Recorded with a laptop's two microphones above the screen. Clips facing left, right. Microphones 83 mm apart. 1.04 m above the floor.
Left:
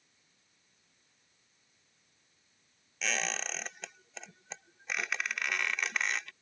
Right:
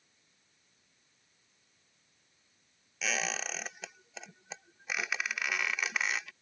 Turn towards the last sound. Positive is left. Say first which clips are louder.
# even
turn(degrees=-5)  # may be behind; listen again after turning